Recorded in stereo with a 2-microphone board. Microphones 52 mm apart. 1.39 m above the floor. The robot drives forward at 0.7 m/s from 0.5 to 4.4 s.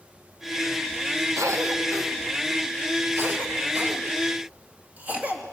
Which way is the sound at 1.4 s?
75° right (ahead or behind).